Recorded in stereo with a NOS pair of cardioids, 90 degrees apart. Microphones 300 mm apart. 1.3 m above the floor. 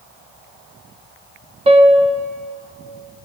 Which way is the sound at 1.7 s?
20° right.